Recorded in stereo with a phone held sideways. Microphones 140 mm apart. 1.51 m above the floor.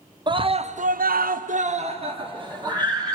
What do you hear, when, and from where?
0.3 s a scream: 35° right (ahead or behind), 1.0 m; by 3.2 s 25° right (ahead or behind), 2 m